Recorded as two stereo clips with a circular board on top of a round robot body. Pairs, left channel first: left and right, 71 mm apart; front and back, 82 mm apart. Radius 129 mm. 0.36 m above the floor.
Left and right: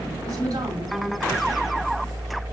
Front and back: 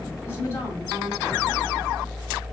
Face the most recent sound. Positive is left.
turn(degrees=-65)